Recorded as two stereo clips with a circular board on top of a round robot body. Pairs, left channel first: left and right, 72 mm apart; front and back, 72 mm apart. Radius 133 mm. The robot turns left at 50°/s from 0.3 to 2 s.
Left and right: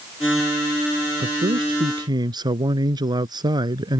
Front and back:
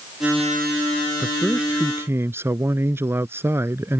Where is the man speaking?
80° right; by 4.0 s 120° right.